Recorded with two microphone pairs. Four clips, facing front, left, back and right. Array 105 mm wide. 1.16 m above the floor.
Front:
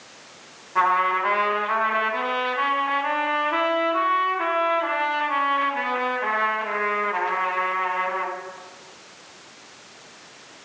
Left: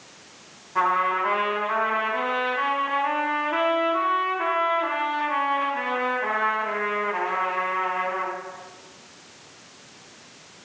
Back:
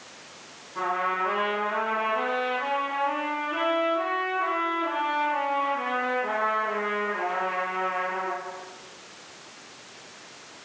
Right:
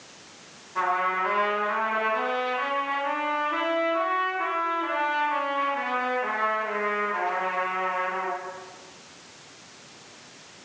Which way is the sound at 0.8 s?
15° left.